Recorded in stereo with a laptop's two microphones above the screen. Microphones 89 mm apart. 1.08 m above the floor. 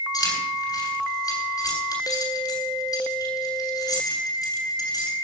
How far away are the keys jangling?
About 8.5 m.